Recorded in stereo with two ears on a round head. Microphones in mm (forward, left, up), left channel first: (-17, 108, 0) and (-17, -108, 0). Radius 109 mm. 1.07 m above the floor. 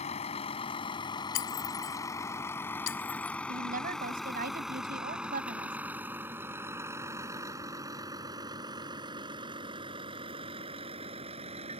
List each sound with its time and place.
0.0 s a vehicle: 25° left (ahead or behind); by 11.8 s 25° right (ahead or behind)
1.4 s breaking glass: 50° left (ahead or behind)
3.5 s a woman speaking: 35° right (ahead or behind)